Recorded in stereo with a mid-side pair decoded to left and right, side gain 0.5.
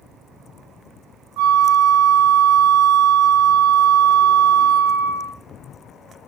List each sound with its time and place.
1.4 s a flute: 65° right, 0.8 m